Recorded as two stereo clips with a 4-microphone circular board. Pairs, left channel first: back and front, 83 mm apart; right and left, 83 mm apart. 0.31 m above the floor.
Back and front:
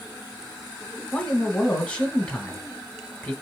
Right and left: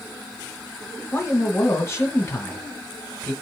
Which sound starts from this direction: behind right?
A man speaking, at 1.1 s.